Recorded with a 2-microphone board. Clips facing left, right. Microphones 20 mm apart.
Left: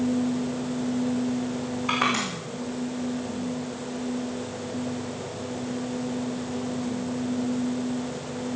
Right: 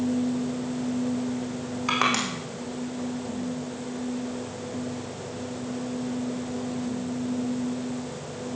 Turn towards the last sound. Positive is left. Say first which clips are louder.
# right 1 dB
turn(degrees=-50)  # may be behind; listen again after turning